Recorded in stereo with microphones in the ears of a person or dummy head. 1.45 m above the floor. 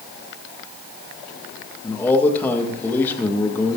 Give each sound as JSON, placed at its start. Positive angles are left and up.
{"t": 1.8, "sound": "a man speaking", "side_deg": 10, "distance_m": 2.0}